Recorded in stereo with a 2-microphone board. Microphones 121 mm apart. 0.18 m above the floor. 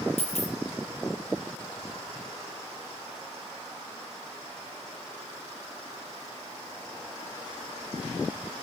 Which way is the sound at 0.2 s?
60° left (ahead or behind).